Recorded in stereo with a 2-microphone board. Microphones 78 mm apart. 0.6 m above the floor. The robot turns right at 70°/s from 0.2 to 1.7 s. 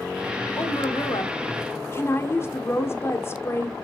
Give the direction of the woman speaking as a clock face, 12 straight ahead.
10 o'clock.